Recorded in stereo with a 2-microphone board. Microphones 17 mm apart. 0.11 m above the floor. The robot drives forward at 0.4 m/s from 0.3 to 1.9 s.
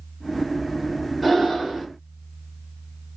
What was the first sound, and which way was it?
Breathing, 10° left (ahead or behind).